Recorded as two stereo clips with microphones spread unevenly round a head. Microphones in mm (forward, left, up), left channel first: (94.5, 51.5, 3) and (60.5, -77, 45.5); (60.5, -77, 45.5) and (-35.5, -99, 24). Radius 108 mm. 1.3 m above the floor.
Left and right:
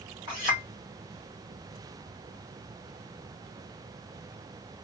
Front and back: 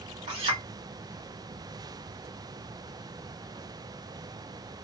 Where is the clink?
175° right, 1.4 m.